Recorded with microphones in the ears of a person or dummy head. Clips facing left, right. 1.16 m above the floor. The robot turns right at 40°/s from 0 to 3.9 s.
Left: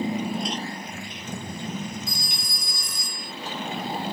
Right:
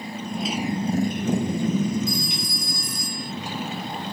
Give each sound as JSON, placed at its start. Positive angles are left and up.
{"t": 0.0, "sound": "a motorcycle", "side_deg": 30}
{"t": 2.1, "sound": "a phone ringing", "azimuth_deg": 35}